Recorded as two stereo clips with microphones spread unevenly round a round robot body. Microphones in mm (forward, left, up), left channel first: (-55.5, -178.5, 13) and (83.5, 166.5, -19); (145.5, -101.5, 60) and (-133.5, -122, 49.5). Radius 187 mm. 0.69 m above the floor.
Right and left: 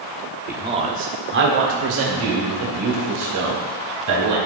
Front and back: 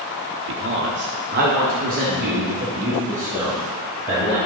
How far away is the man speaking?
About 1.0 m.